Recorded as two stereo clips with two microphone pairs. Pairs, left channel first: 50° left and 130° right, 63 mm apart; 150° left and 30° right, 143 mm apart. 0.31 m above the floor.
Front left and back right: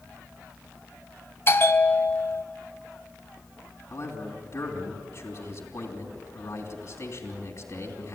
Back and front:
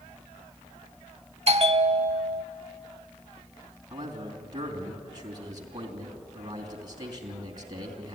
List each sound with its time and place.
1.5 s a bell: 5° left, 0.6 m
3.9 s a man speaking: 25° left, 3 m